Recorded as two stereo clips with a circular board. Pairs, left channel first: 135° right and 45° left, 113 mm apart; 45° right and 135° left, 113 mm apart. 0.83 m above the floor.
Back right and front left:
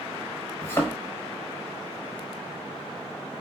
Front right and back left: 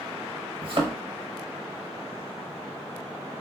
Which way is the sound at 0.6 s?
160° left.